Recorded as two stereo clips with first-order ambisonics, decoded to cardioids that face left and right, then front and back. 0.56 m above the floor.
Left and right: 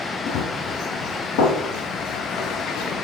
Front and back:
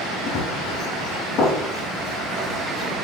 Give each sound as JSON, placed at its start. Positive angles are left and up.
{"t": 0.3, "sound": "running footsteps", "azimuth_deg": 55, "distance_m": 4.0}